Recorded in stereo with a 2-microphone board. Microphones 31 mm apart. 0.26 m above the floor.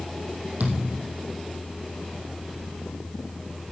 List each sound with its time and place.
0.6 s a thud: 65° right (ahead or behind), 3 m